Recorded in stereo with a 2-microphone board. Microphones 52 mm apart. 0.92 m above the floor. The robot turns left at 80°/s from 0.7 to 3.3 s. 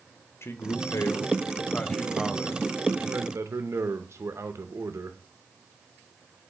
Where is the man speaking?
115° left, 0.6 m; by 5.2 s 90° right, 0.6 m.